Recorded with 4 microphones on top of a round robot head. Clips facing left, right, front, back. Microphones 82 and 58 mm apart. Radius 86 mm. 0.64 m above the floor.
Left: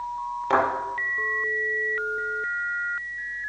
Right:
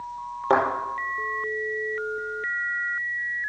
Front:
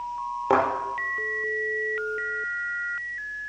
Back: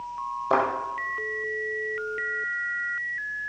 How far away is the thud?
About 5.5 m.